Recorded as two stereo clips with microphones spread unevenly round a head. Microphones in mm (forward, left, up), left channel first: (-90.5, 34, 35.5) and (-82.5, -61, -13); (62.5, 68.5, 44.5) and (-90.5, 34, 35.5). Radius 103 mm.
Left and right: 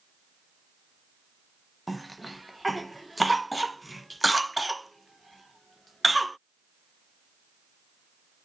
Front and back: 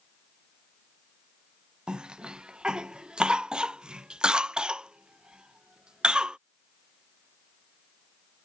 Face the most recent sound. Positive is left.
turn(degrees=-95)